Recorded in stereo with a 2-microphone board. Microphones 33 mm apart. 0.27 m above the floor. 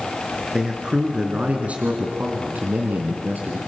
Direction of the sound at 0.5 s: 20° right (ahead or behind).